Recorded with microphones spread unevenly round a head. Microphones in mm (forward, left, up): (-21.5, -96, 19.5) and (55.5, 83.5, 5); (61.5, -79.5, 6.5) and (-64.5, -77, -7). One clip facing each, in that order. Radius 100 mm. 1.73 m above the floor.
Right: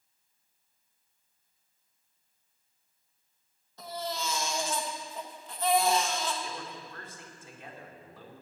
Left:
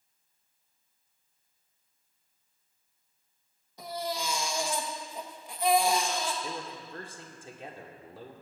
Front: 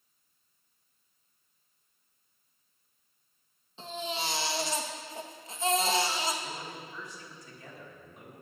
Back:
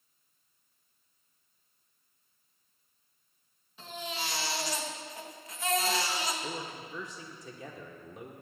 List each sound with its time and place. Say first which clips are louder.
3.8 s a baby crying: left 2 dB, front 3 dB; 5° right, 1.1 m
6.4 s a man speaking: left 2 dB, back 2 dB; 130° left, 1.4 m